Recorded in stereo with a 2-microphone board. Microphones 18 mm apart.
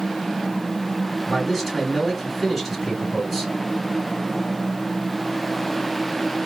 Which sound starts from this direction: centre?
A man speaking, at 1.3 s.